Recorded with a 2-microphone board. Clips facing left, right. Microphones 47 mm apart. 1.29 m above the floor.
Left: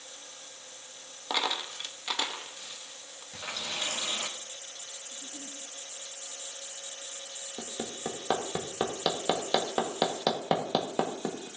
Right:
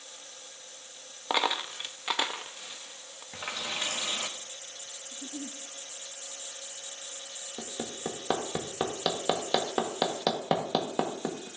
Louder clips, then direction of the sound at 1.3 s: Right 3 dB; 20° right (ahead or behind).